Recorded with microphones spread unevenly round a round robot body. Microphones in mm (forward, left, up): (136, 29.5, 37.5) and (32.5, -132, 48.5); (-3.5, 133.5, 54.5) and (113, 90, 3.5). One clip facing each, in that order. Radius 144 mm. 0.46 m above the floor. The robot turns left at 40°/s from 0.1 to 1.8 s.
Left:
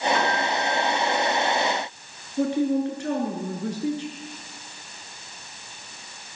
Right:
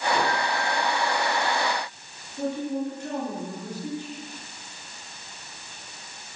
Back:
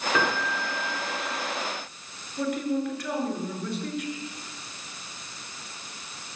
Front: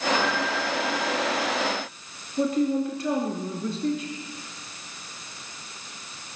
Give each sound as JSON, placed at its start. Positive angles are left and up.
{"t": 0.1, "sound": "a piano", "azimuth_deg": 155, "distance_m": 6.0}
{"t": 2.4, "sound": "a man speaking", "azimuth_deg": 40, "distance_m": 6.5}